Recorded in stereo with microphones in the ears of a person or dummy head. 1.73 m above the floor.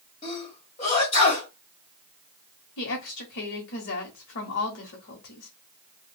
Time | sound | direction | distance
0.2 | a sneeze | 35° left (ahead or behind) | 1.6 m
2.8 | a woman speaking | 60° left (ahead or behind) | 1.0 m